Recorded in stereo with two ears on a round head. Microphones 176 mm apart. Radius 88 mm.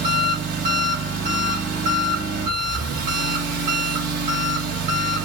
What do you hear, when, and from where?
0.0 s an engine running: 45° right (ahead or behind), 3 m